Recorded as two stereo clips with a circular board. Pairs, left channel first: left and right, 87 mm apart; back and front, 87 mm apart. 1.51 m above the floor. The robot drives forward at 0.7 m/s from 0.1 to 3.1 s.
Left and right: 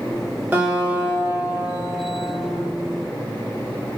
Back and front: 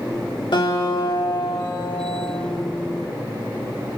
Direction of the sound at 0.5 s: 160° right.